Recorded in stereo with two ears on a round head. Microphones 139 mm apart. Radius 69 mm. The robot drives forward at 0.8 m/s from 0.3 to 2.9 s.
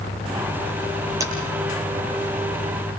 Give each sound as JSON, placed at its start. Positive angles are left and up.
{"t": 1.2, "sound": "tapping", "side_deg": -20, "distance_m": 9.0}